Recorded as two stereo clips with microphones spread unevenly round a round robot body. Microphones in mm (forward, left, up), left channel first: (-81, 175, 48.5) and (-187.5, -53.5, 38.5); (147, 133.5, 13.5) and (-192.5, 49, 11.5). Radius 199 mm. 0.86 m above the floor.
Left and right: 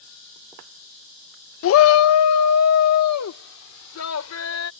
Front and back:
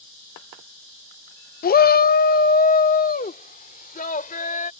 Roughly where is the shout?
Left.